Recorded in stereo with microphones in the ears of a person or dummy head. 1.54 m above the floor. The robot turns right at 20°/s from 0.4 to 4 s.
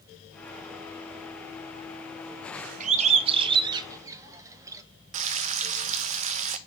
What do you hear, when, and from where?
2.8 s a bird: 45° right (ahead or behind), 0.8 m; by 4.8 s 20° right (ahead or behind), 0.8 m
5.1 s frying: 35° right (ahead or behind), 0.5 m